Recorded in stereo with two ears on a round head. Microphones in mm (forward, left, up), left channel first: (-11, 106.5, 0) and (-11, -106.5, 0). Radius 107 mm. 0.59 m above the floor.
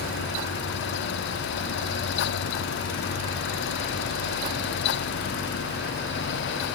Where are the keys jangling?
I don't hear keys jangling.